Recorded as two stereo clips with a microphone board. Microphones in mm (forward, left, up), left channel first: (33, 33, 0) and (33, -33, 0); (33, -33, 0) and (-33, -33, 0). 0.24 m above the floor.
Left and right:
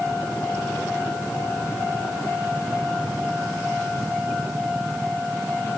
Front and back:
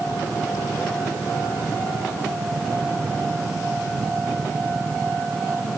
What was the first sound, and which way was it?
Only background noise.